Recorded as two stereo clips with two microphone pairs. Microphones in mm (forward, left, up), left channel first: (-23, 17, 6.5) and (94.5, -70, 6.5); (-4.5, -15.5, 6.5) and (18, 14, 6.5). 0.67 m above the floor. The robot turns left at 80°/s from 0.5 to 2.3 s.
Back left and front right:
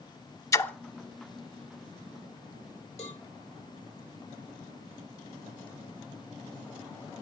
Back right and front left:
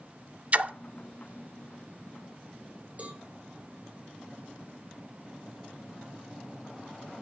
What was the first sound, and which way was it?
A splash, 80° left.